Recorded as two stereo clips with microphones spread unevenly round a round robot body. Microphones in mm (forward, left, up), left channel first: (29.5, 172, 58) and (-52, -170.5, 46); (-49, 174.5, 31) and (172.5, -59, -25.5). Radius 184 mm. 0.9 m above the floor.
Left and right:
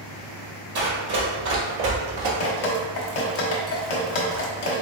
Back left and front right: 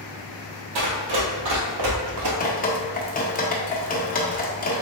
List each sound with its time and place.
0.8 s running footsteps: 45° right, 1.7 m; by 2.3 s 65° right, 1.1 m
2.4 s dripping: 70° left, 0.9 m